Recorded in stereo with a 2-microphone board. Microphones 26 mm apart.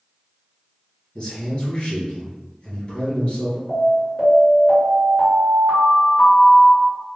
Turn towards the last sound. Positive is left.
turn(degrees=20)  # may be behind; listen again after turning